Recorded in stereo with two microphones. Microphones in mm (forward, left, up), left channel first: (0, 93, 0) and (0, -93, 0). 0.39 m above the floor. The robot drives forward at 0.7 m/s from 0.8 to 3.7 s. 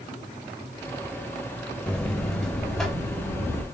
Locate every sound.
1.9 s a buzzer: 5° left (ahead or behind), 0.6 m; by 3.6 s centre (ahead or behind), 1.7 m